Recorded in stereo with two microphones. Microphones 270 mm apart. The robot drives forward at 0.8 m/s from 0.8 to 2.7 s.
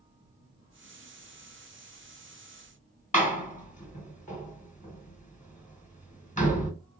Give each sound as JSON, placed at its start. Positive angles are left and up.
{"t": 3.1, "sound": "a door slam", "side_deg": 25, "distance_m": 1.3}